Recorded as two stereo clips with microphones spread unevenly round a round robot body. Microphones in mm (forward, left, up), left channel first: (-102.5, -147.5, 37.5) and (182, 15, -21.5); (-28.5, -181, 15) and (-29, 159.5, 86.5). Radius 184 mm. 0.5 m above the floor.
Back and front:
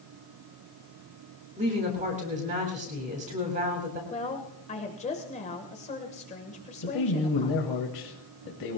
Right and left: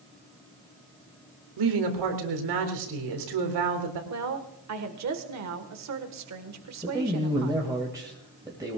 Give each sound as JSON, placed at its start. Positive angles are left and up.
{"t": 1.6, "sound": "a woman speaking", "azimuth_deg": 95, "distance_m": 3.5}
{"t": 4.1, "sound": "a woman speaking", "azimuth_deg": 135, "distance_m": 1.7}
{"t": 6.8, "sound": "a man speaking", "azimuth_deg": 175, "distance_m": 2.5}